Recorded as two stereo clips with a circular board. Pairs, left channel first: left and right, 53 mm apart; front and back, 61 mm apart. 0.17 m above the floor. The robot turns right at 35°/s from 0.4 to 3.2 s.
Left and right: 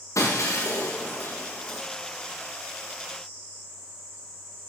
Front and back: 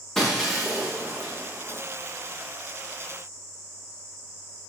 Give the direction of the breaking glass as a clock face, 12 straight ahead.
9 o'clock.